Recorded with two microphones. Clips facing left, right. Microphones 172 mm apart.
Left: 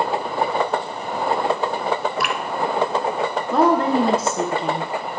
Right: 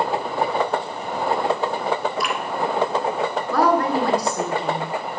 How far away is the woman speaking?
About 1.6 m.